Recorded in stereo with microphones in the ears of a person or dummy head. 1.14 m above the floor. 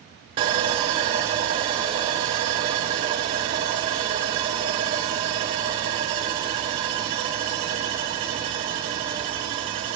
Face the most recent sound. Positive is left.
turn(degrees=-25)  # may be behind; listen again after turning